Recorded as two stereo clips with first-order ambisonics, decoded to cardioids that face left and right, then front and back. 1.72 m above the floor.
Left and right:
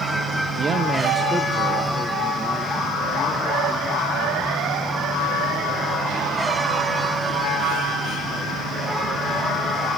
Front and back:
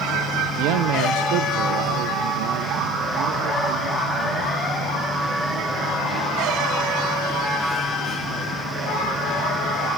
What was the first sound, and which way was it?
A man speaking, 155° right.